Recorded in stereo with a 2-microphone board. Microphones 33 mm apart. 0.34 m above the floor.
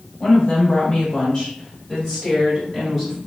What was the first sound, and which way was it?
A woman speaking, 25° left (ahead or behind).